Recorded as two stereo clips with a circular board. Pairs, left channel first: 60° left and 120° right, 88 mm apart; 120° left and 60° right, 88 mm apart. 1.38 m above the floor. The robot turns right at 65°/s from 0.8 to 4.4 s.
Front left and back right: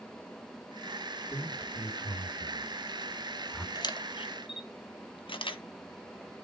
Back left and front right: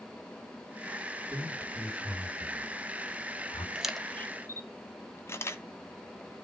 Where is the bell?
I don't hear a bell.